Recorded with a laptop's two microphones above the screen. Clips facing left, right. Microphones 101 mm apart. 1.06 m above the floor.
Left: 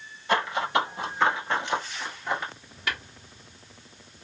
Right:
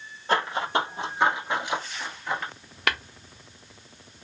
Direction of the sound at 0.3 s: 40° right (ahead or behind).